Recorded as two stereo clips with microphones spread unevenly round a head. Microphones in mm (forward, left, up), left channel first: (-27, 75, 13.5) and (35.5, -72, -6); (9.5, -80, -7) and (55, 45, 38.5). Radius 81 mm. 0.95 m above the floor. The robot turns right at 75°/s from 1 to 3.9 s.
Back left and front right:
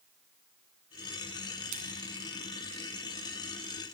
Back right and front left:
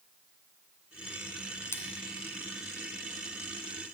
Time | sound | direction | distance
1.7 | a splash | 30° right | 1.8 m